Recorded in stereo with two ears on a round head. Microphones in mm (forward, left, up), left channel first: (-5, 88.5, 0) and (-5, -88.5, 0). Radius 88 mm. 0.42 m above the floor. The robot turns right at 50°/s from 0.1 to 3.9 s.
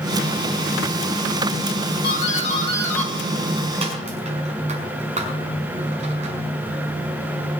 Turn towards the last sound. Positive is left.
turn(degrees=-35)  # may be behind; listen again after turning